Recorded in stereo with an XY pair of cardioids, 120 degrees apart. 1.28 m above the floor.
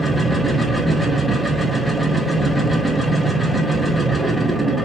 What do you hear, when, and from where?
0.0 s a machine running: straight ahead, 0.7 m